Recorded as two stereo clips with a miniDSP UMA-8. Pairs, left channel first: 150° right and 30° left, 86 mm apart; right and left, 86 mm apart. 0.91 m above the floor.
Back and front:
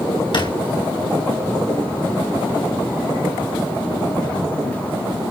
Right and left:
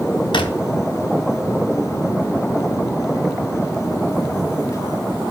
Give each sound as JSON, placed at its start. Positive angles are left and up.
{"t": 0.3, "sound": "a drawer", "azimuth_deg": -120, "distance_m": 3.5}